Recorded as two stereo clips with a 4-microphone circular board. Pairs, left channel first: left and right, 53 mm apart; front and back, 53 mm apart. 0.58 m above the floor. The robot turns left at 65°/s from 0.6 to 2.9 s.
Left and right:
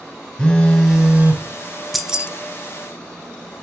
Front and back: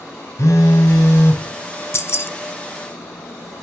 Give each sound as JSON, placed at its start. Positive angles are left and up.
{"t": 0.4, "sound": "a phone buzzing", "azimuth_deg": 20, "distance_m": 1.2}
{"t": 1.9, "sound": "keys jangling", "azimuth_deg": 0, "distance_m": 0.6}